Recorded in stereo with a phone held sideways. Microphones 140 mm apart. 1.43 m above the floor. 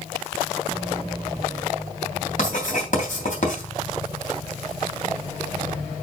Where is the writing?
60° left (ahead or behind), 3 m.